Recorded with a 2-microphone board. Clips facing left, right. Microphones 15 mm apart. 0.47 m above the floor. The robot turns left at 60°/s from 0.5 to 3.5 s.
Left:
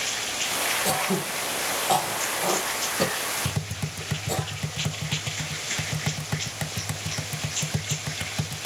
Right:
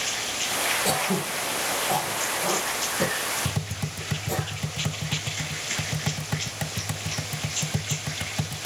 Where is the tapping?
5° left (ahead or behind), 0.8 m.